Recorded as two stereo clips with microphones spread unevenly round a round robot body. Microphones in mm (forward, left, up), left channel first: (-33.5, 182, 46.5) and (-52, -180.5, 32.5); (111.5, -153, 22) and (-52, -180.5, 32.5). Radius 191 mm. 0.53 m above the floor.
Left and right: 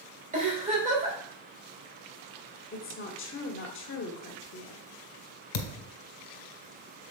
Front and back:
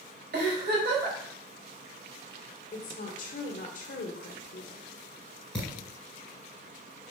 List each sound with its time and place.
0.3 s a giggle: 160° right, 2.5 m
2.7 s a woman speaking: 35° left, 1.2 m
5.5 s a thud: 100° left, 1.4 m